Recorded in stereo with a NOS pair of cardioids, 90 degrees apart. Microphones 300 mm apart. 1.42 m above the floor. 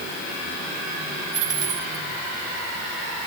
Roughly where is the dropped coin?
Ahead right.